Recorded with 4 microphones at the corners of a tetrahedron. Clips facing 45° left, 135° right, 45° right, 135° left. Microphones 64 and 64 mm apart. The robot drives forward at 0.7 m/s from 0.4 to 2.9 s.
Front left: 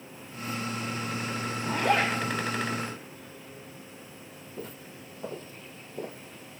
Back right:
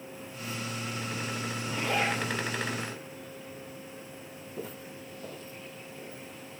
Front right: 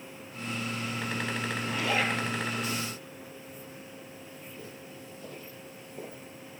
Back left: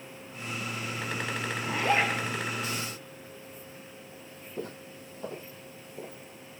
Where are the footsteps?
145° left, 1.2 m; by 6.6 s 35° left, 1.8 m.